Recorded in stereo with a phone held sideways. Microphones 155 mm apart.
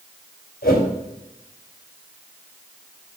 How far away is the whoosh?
About 2.5 m.